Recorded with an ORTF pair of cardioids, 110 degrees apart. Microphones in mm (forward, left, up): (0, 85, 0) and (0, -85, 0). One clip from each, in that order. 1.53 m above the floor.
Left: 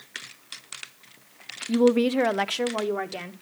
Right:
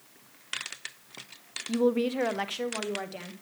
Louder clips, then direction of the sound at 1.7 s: Left 6 dB; 15° left.